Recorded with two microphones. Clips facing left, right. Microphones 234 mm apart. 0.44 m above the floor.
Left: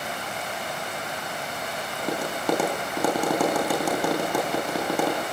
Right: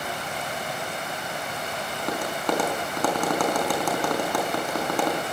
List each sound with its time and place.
2.0 s tapping: 10° left (ahead or behind), 5 m